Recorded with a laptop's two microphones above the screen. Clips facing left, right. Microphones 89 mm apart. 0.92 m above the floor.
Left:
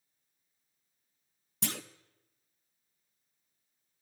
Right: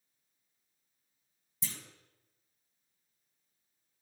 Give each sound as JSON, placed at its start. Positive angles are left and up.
{"t": 1.6, "sound": "a clunk", "side_deg": 70, "distance_m": 0.5}